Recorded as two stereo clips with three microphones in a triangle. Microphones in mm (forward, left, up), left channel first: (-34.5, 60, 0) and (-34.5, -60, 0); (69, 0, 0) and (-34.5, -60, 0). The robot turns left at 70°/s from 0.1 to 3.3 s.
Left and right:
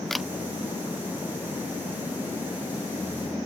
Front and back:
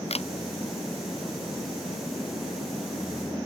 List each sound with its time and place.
0.1 s a camera shutter: 5° left; by 0.3 s 10° right